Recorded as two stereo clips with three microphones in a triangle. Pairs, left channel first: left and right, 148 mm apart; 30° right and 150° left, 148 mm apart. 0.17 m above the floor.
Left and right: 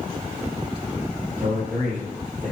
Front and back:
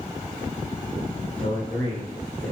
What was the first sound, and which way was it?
A man speaking, 75° right.